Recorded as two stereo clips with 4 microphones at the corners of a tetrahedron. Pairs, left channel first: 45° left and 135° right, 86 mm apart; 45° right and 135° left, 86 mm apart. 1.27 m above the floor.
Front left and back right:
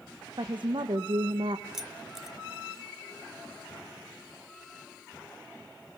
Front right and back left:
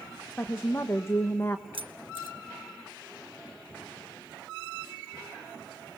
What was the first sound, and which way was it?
A woman speaking, 110° right.